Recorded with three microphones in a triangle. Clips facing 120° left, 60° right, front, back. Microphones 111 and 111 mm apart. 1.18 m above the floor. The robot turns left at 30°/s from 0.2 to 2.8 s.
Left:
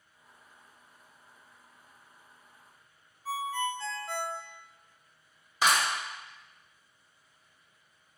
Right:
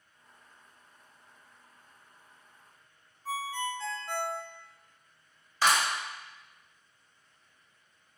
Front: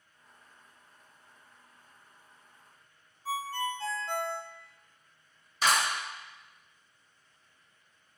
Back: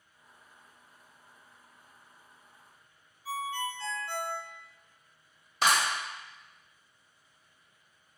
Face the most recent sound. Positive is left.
turn(degrees=-165)